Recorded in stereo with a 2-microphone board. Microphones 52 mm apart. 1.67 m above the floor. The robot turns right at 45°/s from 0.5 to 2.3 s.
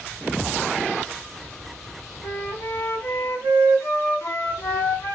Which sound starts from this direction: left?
A flute, at 2.2 s.